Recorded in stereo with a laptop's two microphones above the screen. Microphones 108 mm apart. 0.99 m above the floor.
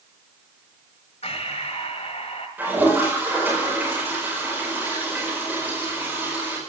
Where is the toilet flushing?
15° right (ahead or behind), 4.5 m.